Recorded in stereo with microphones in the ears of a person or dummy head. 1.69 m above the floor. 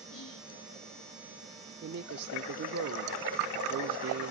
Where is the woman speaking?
60° right (ahead or behind), 0.6 m.